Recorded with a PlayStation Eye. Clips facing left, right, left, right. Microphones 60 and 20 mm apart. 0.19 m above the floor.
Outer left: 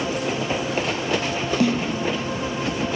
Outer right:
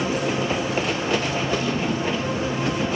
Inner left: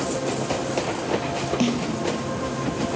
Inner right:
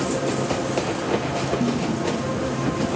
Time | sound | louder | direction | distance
1.6 | a snare drum | outer left 4 dB, inner left 3 dB | 75° left (ahead or behind) | 1.5 m